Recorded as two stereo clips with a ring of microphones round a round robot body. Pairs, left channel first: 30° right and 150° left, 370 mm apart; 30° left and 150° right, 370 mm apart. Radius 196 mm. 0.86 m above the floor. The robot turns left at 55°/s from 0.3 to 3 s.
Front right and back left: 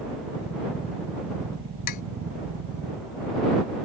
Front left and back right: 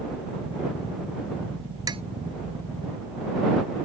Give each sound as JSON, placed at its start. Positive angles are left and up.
{"t": 1.9, "sound": "tapping", "azimuth_deg": -70}